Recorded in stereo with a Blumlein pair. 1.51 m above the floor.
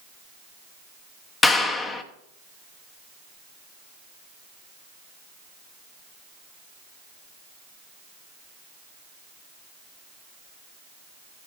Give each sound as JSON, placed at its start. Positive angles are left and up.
{"t": 1.4, "sound": "a clap", "azimuth_deg": 15, "distance_m": 0.9}